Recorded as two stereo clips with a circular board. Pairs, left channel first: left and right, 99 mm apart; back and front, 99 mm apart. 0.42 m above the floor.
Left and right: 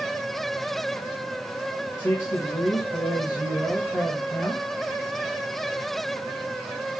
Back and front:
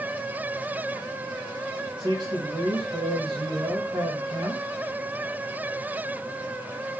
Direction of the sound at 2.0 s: 25° left.